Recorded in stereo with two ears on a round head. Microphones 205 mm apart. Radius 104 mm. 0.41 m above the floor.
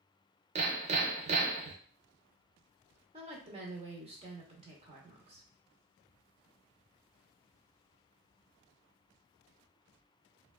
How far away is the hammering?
About 0.5 m.